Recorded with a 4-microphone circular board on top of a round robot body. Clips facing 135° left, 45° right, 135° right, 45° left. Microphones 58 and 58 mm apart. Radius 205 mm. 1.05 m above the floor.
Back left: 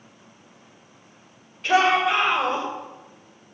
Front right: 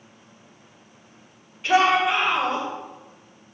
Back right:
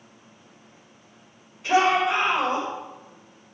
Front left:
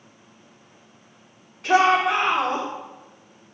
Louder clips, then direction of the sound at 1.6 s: Even, front left 2 dB; 35° left.